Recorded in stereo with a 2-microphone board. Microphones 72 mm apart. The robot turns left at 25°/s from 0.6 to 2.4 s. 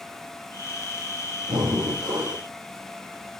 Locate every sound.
1.5 s breathing: 75° right (ahead or behind), 4.5 m; by 2.4 s 65° right (ahead or behind), 4.5 m